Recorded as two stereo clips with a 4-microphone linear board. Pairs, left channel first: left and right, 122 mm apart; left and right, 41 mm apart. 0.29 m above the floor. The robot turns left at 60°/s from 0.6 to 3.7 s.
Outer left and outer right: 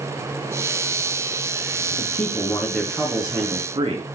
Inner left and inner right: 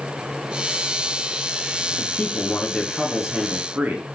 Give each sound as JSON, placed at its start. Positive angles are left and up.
{"t": 1.9, "sound": "a man speaking", "azimuth_deg": 70, "distance_m": 3.5}